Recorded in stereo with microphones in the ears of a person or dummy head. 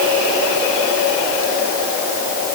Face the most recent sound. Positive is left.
No sound to turn to.